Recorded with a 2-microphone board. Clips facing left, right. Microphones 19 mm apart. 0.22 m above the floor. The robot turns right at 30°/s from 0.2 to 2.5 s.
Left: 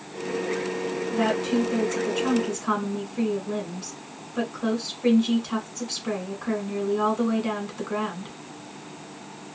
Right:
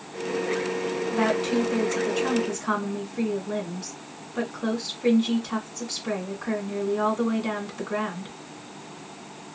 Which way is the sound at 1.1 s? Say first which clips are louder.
Even; 45° right.